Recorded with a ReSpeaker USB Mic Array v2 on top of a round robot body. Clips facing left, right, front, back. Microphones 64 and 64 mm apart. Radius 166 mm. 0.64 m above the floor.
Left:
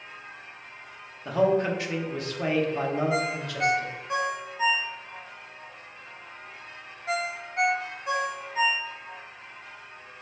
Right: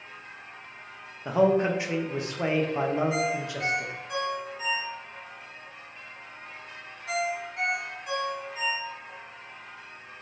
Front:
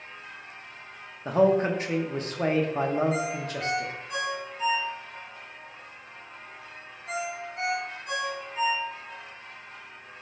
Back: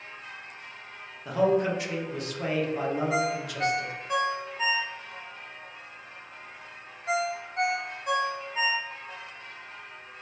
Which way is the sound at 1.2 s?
30° right.